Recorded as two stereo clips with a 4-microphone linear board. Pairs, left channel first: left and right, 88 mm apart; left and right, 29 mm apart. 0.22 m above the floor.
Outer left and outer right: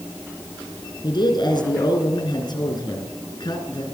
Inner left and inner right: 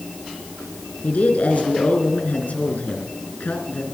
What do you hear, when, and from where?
1.0 s a man speaking: 60° left (ahead or behind), 3 m